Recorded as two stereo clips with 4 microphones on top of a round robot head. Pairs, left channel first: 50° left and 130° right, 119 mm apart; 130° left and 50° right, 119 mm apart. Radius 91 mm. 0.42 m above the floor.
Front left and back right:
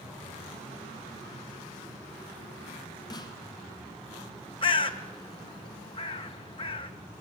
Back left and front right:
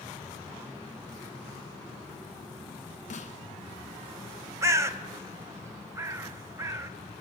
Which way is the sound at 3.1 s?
105° left.